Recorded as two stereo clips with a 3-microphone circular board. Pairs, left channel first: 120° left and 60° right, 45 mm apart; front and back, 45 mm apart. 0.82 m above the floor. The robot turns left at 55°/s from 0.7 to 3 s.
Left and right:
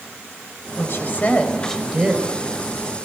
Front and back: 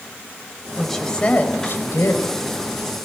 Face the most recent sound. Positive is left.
turn(degrees=-30)